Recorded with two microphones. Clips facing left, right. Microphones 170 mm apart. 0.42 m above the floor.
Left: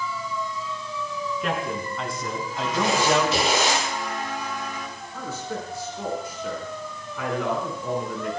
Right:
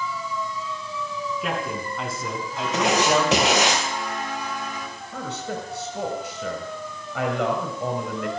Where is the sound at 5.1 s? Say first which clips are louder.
Right 1 dB; 80° right, 6 m.